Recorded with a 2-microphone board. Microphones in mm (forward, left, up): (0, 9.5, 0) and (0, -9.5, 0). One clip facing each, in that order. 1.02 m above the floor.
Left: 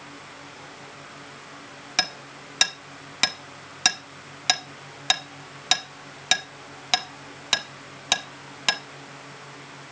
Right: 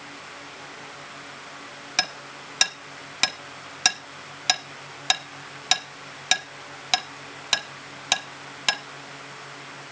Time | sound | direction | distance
2.0 | hammering | centre (ahead or behind) | 1.1 m